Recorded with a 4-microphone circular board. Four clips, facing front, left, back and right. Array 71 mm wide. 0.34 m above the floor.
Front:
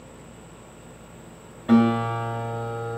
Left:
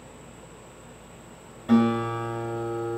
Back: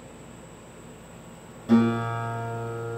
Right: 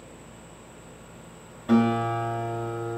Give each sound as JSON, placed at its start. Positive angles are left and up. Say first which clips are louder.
{"t": 1.7, "sound": "a guitar", "louder": "even, front 2 dB", "azimuth_deg": 0, "distance_m": 1.1}